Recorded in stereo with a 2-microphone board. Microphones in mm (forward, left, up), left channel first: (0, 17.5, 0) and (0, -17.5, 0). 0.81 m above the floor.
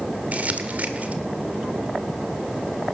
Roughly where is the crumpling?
Right.